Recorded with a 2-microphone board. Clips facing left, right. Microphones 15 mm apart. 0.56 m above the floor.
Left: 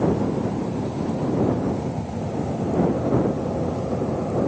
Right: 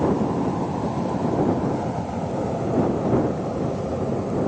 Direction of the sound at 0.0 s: 55° right (ahead or behind).